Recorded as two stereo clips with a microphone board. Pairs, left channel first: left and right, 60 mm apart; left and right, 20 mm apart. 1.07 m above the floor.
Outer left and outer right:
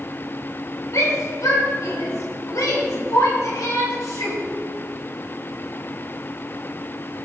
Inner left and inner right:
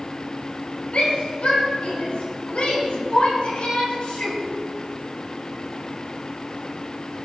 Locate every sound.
0.9 s a shout: 75° left (ahead or behind), 4 m; by 4.4 s 80° left, 7 m